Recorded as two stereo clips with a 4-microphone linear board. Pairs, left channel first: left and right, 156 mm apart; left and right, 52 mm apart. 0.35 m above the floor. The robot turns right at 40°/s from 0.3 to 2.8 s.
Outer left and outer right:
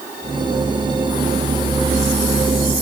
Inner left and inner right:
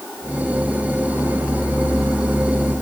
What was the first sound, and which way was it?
Only background noise.